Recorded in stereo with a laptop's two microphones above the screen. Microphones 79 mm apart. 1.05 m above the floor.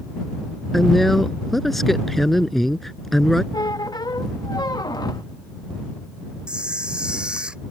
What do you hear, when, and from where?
0.7 s a woman speaking: 5° left (ahead or behind)
3.5 s a squeak: 60° left (ahead or behind)
6.5 s a camera shutter: 10° right (ahead or behind)